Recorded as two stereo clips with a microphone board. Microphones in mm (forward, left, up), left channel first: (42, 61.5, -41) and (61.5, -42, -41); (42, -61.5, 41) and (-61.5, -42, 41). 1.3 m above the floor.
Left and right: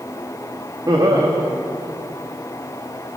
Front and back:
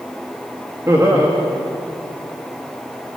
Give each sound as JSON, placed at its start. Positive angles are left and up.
{"t": 0.9, "sound": "laughter", "azimuth_deg": -125, "distance_m": 2.5}